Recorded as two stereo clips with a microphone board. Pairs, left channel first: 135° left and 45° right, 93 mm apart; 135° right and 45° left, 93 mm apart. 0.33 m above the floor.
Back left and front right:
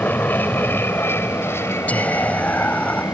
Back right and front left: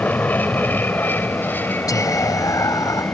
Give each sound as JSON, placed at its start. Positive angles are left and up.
{"t": 0.0, "sound": "an aircraft", "azimuth_deg": 180}
{"t": 1.9, "sound": "whispering", "azimuth_deg": -160}